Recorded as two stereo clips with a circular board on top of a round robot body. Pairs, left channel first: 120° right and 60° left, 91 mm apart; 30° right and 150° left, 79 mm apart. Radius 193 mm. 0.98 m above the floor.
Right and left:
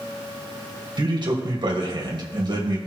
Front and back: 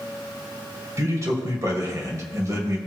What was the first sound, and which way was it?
A man speaking, 100° left.